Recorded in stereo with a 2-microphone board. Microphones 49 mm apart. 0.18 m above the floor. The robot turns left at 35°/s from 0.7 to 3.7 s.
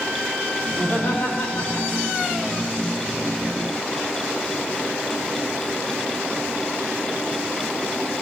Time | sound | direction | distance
0.7 | laughter | 135° left | 7 m